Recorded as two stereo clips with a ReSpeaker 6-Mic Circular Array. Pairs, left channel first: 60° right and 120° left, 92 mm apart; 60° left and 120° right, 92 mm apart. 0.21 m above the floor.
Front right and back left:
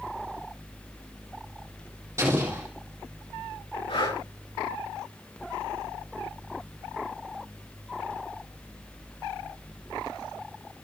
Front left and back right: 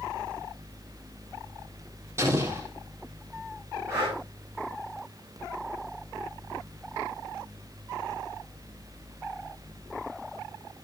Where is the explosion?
Straight behind, 3.5 m.